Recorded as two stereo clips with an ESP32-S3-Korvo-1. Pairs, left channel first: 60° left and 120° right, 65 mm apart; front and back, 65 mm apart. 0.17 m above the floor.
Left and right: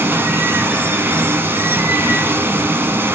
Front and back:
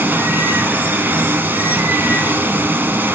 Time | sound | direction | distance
0.0 | running water | 145° right | 1.3 m